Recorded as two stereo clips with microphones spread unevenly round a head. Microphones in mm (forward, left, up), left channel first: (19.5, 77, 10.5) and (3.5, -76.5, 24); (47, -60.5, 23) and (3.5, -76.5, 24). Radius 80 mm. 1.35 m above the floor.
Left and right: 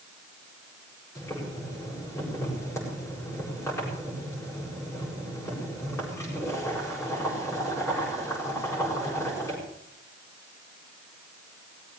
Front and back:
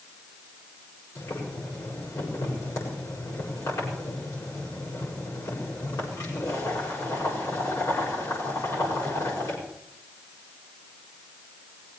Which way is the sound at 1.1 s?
10° left.